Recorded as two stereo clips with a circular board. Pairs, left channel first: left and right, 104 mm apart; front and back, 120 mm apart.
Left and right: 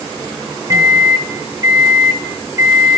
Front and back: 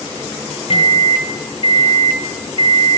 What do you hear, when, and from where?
0.7 s a microwave: 35° right, 0.8 m